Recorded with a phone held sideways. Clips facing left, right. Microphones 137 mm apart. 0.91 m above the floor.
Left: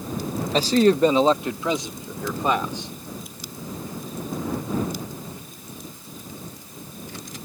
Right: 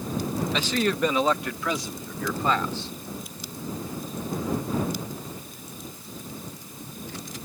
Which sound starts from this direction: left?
A man speaking, at 0.5 s.